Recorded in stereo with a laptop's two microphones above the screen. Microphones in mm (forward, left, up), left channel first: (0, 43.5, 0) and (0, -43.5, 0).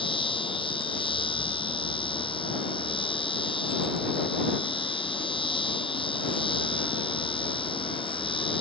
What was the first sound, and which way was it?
A machine running, 85° left.